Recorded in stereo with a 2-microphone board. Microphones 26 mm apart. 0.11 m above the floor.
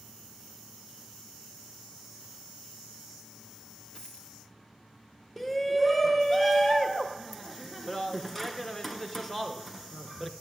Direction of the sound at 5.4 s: 10° left (ahead or behind).